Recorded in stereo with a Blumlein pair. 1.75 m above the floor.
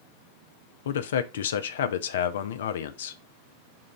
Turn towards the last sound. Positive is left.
turn(degrees=60)